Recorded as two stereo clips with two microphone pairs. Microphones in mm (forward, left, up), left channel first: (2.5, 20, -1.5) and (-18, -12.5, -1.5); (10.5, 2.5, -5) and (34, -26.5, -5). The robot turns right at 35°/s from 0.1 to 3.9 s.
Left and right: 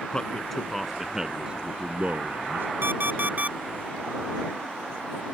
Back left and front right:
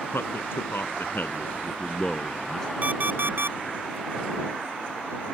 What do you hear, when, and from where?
0.1 s a man speaking: 125° left; by 2.7 s 150° right
2.8 s an alarm clock: 100° right; by 3.6 s 75° right